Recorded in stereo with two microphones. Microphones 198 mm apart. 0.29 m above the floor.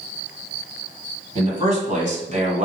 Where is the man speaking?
35° right (ahead or behind), 2.5 m.